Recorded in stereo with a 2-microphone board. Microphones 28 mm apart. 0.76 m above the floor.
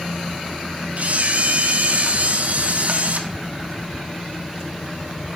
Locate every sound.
1.0 s a camera shutter: 55° right (ahead or behind), 0.7 m